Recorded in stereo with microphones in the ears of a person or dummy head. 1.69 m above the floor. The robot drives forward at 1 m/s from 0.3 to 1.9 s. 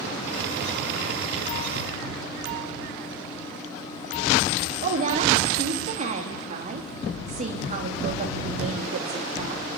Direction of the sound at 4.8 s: 45° right (ahead or behind).